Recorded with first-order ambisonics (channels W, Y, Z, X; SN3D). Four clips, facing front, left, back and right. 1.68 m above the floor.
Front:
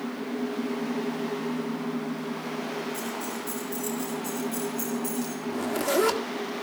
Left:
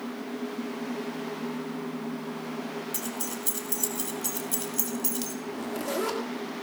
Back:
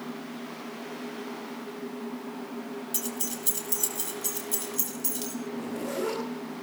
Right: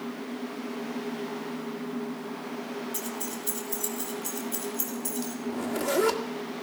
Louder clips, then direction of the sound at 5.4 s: Right 3 dB, front 9 dB; 10° right.